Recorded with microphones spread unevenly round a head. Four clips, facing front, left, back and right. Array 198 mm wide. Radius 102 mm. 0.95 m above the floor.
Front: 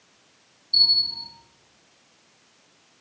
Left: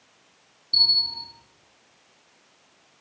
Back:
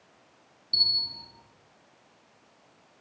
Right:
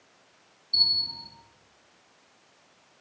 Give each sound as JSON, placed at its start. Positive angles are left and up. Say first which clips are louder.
{"t": 0.7, "sound": "a bell", "louder": "left 4 dB, front 5 dB", "azimuth_deg": 115, "distance_m": 2.5}